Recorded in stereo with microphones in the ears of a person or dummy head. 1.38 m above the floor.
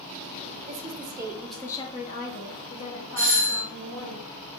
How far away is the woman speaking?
About 0.7 m.